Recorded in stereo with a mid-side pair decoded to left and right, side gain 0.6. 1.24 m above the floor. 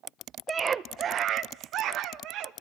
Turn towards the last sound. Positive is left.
turn(degrees=-70)